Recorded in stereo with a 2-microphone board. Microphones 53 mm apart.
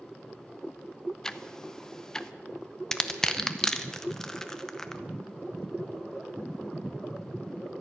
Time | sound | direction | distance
1.2 | ticking | 10° left (ahead or behind) | 0.5 m
2.9 | crushing | 10° left (ahead or behind) | 0.8 m